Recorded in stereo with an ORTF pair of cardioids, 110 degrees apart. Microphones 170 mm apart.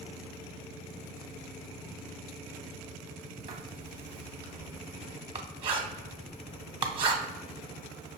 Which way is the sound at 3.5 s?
35° right.